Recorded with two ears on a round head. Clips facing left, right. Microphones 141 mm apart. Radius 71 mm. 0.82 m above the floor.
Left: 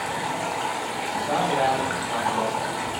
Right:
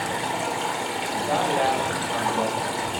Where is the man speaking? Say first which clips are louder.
Even; 15° right (ahead or behind), 1.6 m.